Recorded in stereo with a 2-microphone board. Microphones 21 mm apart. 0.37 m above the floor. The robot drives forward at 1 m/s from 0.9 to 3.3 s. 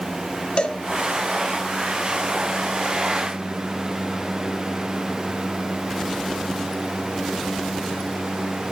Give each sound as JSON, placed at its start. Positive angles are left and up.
{"t": 0.6, "sound": "a cowbell", "side_deg": 65, "distance_m": 2.0}